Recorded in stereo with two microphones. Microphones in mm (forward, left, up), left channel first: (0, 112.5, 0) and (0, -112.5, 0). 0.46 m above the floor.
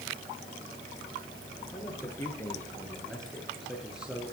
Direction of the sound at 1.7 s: 15° left (ahead or behind).